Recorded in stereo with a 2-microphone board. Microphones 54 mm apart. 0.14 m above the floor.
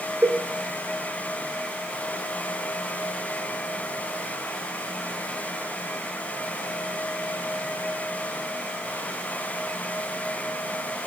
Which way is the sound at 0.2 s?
45° right (ahead or behind).